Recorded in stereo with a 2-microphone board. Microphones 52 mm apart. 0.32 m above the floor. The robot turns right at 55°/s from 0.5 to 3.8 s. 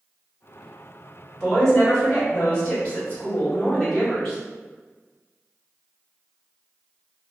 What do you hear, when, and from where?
1.4 s a woman speaking: 5° left (ahead or behind), 1.5 m; by 4.4 s 15° left (ahead or behind), 1.5 m